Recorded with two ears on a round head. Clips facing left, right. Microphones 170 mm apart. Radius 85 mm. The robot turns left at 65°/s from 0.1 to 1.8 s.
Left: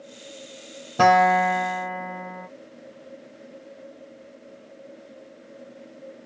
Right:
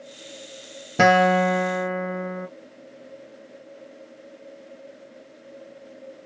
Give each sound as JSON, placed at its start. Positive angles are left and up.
{"t": 1.0, "sound": "a guitar", "azimuth_deg": -30, "distance_m": 0.7}